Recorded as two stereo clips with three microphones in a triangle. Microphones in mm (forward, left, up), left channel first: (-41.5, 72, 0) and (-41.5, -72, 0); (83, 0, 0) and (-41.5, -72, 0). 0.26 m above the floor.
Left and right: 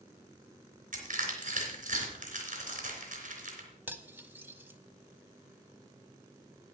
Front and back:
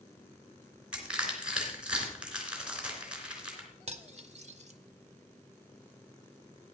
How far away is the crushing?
About 3 m.